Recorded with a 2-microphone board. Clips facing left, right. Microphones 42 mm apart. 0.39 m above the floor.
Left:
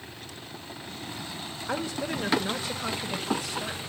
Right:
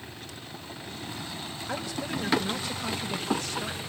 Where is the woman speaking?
30° left (ahead or behind), 1.2 m; by 3.8 s 10° left (ahead or behind), 2.5 m.